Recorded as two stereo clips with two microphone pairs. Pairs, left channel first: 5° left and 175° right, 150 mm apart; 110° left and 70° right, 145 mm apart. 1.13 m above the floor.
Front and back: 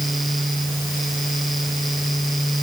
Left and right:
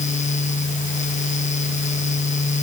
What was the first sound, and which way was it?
Only background noise.